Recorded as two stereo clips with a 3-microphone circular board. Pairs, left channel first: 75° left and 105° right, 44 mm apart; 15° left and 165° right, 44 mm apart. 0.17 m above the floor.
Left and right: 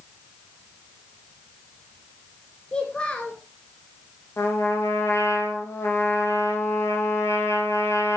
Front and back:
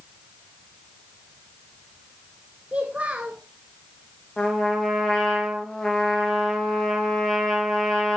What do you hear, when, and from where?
2.7 s a child speaking: 140° left, 1.6 m
4.4 s a trumpet: 90° left, 6 m